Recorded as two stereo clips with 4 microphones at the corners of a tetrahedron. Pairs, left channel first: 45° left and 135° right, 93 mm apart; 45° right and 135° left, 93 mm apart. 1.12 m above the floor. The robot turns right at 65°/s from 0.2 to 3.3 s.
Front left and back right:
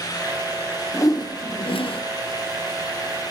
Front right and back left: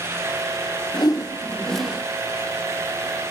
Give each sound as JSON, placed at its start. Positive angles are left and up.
{"t": 0.9, "sound": "a whoosh", "azimuth_deg": -10, "distance_m": 0.6}